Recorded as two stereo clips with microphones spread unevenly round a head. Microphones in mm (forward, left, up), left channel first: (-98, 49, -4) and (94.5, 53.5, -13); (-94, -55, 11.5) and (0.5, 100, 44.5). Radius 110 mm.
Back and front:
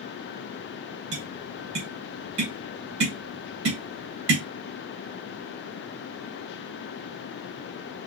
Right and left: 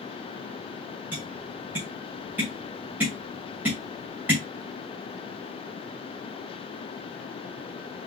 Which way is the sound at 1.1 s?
20° right.